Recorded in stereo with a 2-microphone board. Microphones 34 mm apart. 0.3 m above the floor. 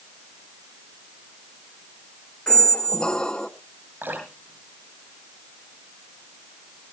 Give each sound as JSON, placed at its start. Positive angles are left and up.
{"t": 2.5, "sound": "a squeak", "side_deg": 25, "distance_m": 0.7}
{"t": 4.0, "sound": "dripping", "side_deg": -75, "distance_m": 6.5}